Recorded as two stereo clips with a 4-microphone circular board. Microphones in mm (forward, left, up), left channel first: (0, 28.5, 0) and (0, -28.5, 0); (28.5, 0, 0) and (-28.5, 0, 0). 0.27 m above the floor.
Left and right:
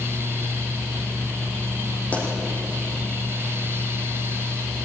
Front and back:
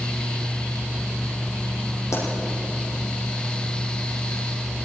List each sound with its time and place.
2.1 s a pop: 25° left, 7.5 m